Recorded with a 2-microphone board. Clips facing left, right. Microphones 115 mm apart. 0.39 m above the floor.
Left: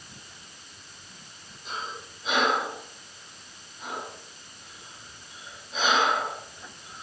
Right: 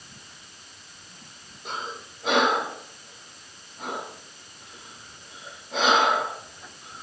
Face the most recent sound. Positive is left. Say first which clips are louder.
# right 2 dB
turn(degrees=-65)  # may be behind; listen again after turning